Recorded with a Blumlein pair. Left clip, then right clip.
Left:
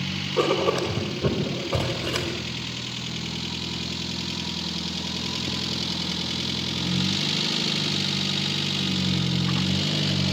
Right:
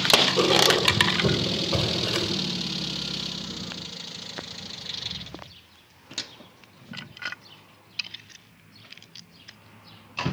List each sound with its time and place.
0.4 s writing: straight ahead, 4.5 m